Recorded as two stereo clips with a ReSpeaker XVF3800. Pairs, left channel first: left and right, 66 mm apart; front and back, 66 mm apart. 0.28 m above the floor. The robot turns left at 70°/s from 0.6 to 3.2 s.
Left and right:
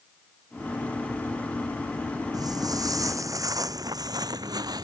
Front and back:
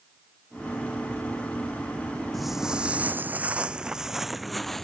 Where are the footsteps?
90° right; by 4.8 s 85° right.